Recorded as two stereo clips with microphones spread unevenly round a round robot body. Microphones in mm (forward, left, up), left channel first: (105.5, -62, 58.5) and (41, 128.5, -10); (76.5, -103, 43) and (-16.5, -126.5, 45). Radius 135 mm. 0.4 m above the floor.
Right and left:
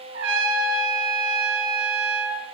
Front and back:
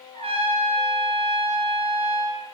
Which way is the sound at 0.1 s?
145° left.